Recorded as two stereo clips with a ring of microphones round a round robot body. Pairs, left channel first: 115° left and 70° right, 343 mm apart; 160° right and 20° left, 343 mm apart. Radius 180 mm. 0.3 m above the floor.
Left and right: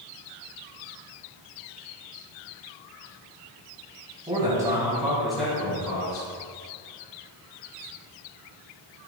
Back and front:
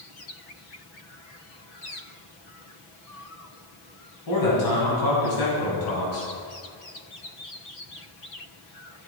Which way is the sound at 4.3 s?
145° right.